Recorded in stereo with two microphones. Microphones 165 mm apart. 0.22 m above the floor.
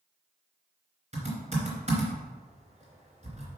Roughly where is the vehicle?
I don't hear a vehicle.